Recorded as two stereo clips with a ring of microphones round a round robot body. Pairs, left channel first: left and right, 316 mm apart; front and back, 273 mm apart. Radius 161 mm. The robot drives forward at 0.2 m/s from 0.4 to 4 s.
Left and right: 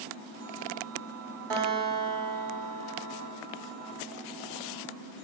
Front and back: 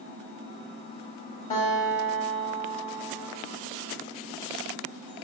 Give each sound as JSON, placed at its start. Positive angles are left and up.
{"t": 1.5, "sound": "a guitar", "azimuth_deg": -75, "distance_m": 2.5}